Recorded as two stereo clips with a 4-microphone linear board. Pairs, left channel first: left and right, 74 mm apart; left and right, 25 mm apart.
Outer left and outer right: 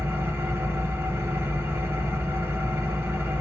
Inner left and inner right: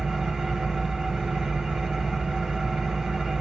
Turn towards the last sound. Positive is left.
turn(degrees=-30)  # may be behind; listen again after turning